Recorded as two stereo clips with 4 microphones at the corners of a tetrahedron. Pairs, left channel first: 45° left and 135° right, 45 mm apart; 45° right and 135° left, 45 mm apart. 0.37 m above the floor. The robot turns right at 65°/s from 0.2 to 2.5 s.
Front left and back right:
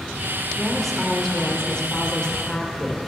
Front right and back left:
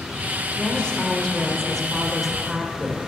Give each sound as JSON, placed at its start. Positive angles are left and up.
{"t": 0.6, "sound": "a woman speaking", "azimuth_deg": -55, "distance_m": 0.8}